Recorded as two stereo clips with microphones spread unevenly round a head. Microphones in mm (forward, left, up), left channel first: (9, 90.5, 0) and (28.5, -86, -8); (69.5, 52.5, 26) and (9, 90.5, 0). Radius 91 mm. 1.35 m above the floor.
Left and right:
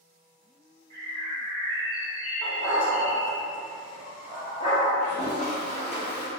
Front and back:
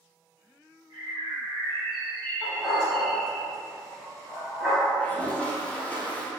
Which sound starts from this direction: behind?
A bird, at 0.9 s.